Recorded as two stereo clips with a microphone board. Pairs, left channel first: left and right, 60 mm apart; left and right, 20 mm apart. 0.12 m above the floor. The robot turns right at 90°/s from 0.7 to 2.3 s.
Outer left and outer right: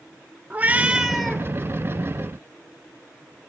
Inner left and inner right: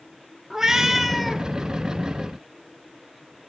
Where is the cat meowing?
45° right, 0.9 m; by 1.4 s 25° left, 0.9 m.